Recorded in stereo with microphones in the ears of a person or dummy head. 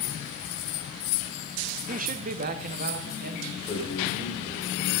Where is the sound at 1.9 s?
40° right (ahead or behind), 0.6 m; by 3.5 s 50° right (ahead or behind), 1.8 m.